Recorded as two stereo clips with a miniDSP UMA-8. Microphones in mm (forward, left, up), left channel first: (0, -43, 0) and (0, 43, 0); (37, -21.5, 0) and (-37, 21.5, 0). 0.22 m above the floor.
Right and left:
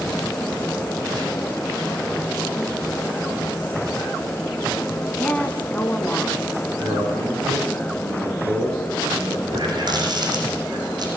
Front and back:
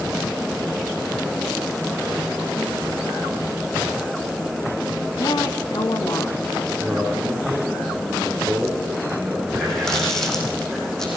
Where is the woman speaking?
20° right, 2 m.